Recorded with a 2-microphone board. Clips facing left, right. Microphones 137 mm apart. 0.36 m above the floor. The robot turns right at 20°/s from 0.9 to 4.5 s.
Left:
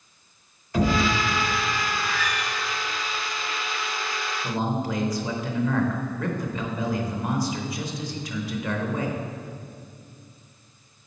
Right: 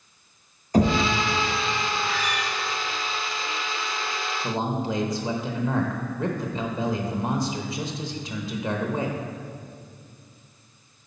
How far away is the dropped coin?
I don't hear a dropped coin.